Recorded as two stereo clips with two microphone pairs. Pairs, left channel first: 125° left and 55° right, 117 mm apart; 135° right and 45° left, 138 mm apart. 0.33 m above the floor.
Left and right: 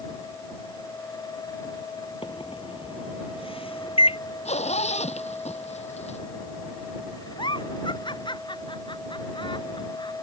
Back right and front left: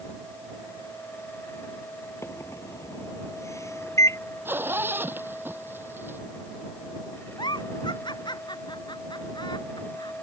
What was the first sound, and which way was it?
A microwave, 155° left.